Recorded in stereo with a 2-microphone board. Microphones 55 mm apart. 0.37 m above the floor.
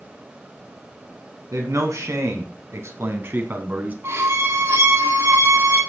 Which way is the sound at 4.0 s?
55° right (ahead or behind).